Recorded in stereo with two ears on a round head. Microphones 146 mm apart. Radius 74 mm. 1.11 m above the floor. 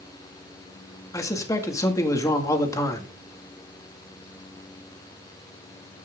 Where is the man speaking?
20° left (ahead or behind), 2.0 m.